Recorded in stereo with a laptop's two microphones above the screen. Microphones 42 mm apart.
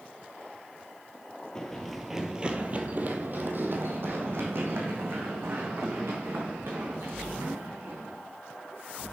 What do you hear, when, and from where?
1.6 s running footsteps: 15° left (ahead or behind), 1.2 m; by 8.1 s 80° right, 6 m